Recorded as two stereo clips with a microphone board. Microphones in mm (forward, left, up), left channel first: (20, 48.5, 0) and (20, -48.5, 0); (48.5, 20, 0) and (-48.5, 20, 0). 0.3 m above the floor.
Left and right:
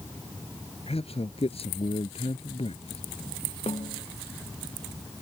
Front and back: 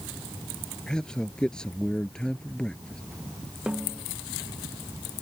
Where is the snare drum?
100° left.